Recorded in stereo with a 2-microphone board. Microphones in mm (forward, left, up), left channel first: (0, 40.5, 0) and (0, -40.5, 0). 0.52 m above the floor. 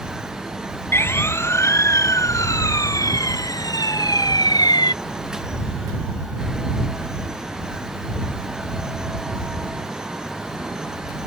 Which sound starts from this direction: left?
A siren, at 0.9 s.